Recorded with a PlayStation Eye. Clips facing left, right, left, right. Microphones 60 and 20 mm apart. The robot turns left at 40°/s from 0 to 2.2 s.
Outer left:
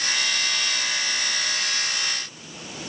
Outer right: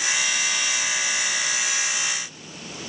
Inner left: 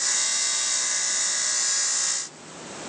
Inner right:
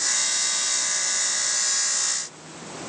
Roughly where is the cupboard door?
No cupboard door in this recording.